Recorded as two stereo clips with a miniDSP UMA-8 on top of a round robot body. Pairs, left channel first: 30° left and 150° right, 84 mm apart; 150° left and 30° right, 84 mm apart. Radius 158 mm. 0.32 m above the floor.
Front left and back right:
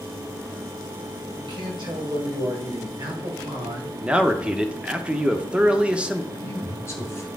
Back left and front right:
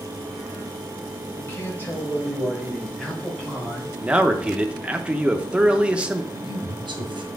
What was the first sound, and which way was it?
A man speaking, 150° right.